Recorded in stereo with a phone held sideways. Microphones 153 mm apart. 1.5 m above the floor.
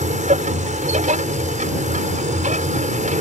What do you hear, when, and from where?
0.0 s a machine running: 55° right (ahead or behind)